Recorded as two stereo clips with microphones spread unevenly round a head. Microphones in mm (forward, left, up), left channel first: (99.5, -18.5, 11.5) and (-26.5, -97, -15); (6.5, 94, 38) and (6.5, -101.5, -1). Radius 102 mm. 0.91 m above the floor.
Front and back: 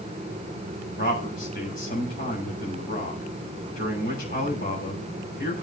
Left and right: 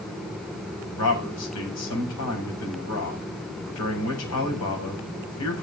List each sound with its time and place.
1.0 s a man speaking: 85° left, 7.5 m